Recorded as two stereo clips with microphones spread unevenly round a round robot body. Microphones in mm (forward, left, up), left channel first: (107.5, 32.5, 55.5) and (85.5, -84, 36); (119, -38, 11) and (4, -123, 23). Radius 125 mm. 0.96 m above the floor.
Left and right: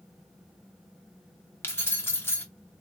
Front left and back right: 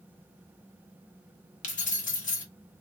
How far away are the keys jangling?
About 1.0 m.